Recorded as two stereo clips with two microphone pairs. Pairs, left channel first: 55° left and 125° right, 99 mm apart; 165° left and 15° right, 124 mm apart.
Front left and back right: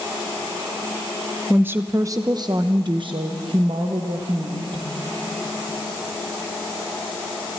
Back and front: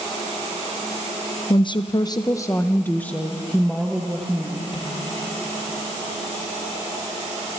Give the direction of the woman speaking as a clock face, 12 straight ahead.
6 o'clock.